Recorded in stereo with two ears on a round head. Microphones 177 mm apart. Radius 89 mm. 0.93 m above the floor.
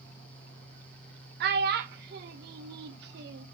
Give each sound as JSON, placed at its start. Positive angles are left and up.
{"t": 1.4, "sound": "a child speaking", "side_deg": -55, "distance_m": 0.5}